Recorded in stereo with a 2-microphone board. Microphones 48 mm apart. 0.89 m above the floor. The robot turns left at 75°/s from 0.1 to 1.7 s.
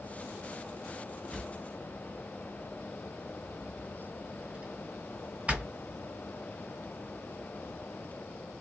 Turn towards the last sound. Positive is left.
turn(degrees=-30)  # may be behind; listen again after turning